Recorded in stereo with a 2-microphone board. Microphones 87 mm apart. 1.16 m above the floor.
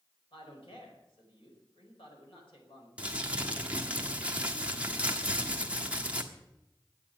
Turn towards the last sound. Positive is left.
turn(degrees=-15)  # may be behind; listen again after turning